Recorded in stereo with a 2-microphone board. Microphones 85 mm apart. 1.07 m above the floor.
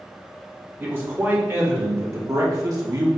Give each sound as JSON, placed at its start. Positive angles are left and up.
{"t": 0.8, "sound": "a man speaking", "side_deg": -25, "distance_m": 3.0}